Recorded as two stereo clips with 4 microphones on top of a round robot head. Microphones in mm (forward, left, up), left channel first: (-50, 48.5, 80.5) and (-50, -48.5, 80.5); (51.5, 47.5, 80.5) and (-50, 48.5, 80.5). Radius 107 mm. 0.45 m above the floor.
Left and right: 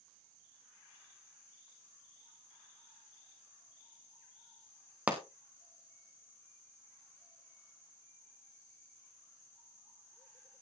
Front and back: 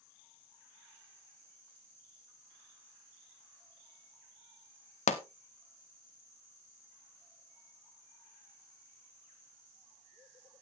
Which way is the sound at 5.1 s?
10° right.